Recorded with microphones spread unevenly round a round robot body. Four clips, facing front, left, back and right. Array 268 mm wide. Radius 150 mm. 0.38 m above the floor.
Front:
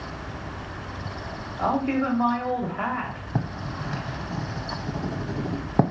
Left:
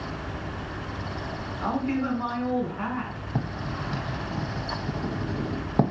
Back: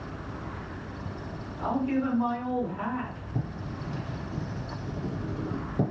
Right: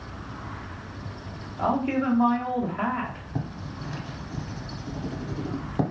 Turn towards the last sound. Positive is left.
turn(degrees=15)